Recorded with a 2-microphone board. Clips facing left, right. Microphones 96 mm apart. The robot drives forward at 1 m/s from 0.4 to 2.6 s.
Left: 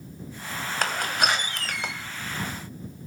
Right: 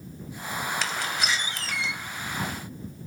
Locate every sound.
0.8 s a door slam: 50° left (ahead or behind), 1.7 m; by 1.9 s 55° left (ahead or behind), 1.6 m